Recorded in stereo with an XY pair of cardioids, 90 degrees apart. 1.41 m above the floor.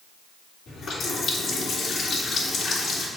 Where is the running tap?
65° left, 2.5 m.